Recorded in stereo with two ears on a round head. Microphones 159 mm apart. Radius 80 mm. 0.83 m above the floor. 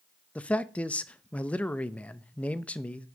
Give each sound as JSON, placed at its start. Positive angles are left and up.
{"t": 0.3, "sound": "a man speaking", "side_deg": 10, "distance_m": 0.6}